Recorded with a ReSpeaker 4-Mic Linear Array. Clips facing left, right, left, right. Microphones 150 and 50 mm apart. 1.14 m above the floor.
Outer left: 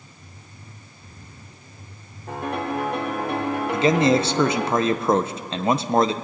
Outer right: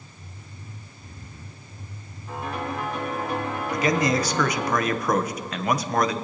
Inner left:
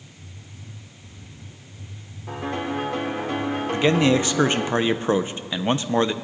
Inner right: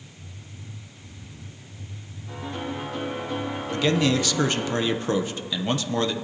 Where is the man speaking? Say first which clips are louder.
Outer left 5 dB, inner left 3 dB; 25° left (ahead or behind), 0.5 m.